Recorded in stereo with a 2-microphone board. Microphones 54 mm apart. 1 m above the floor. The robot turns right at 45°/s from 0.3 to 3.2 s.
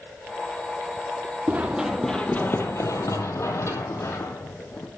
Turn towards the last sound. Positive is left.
turn(degrees=40)  # may be behind; listen again after turning